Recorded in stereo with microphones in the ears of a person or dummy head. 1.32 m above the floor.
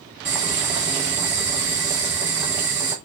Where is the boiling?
5° right (ahead or behind), 0.6 m.